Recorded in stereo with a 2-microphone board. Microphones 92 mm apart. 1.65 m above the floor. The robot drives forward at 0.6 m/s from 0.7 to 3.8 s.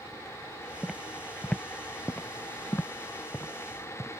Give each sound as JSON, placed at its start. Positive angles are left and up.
{"t": 0.8, "sound": "footsteps", "side_deg": -5}